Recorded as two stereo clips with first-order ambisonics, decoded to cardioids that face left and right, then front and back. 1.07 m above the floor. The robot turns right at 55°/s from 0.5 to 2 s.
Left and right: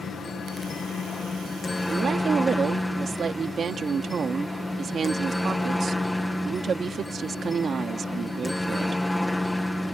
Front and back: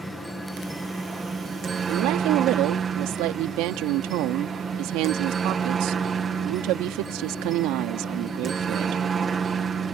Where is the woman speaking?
165° right; by 9.0 s 155° right.